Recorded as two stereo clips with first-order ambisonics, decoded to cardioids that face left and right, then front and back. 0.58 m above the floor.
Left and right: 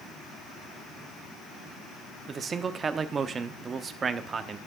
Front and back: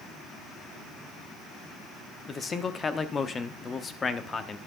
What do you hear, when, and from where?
2.3 s a man speaking: 45° right, 0.7 m